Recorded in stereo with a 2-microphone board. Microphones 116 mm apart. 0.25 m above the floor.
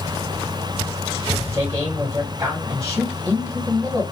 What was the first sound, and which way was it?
A man speaking, 35° right (ahead or behind).